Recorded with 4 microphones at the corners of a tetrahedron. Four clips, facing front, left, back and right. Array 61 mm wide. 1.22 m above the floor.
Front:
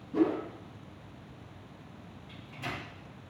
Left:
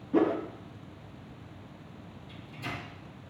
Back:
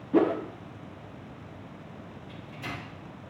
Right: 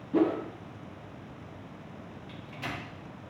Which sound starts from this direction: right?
A microwave, at 2.3 s.